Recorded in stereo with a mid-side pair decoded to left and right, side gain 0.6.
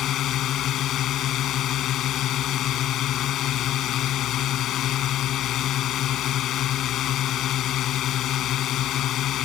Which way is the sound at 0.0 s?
55° left.